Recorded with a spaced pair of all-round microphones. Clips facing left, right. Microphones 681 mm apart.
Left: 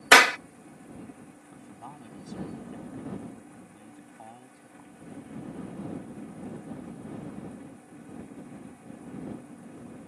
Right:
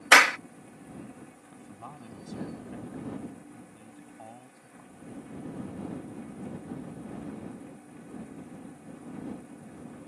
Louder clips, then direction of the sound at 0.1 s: Left 4 dB; 60° left (ahead or behind).